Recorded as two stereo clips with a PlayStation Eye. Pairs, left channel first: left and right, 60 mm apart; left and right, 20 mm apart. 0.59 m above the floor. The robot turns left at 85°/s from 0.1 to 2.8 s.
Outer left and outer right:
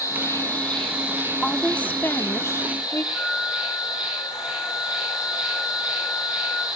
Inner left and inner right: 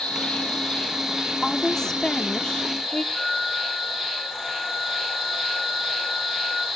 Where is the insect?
70° left, 9.5 m; by 6.8 s 160° right, 9.5 m.